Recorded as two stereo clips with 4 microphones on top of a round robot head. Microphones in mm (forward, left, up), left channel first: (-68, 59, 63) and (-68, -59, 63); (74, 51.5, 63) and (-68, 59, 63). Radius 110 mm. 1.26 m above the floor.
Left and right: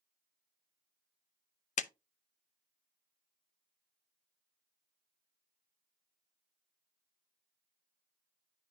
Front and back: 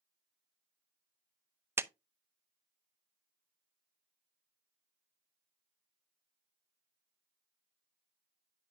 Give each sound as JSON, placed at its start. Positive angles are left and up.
{"t": 1.8, "sound": "a clap", "azimuth_deg": 105, "distance_m": 0.6}